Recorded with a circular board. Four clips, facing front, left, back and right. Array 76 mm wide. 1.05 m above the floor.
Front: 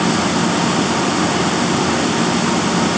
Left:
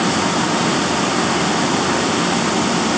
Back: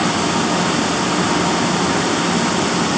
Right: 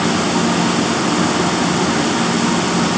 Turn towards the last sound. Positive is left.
No sound to turn to.